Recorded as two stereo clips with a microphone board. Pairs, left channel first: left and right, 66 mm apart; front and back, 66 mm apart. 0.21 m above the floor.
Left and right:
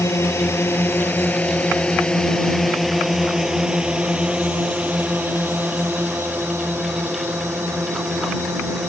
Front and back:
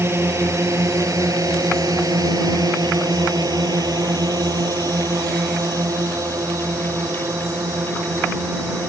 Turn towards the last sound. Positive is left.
turn(degrees=-135)